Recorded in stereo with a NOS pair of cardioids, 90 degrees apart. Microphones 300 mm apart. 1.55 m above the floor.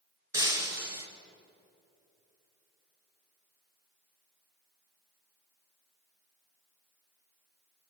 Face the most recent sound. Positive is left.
turn(degrees=-10)